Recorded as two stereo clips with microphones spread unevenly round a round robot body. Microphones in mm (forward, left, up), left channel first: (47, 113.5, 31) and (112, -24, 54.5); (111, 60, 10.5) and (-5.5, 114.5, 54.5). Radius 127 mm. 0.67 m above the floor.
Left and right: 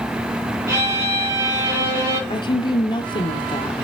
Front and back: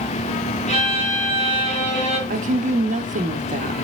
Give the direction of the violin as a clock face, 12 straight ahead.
12 o'clock.